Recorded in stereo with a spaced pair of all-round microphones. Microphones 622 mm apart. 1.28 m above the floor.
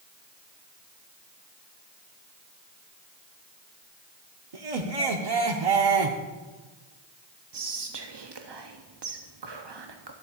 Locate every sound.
4.5 s laughter: 70° right (ahead or behind), 0.8 m
7.5 s whispering: 45° right (ahead or behind), 0.6 m